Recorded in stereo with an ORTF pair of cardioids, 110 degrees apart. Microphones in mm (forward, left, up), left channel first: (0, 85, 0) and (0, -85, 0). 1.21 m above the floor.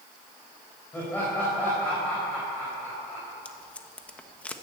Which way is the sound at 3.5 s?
10° left.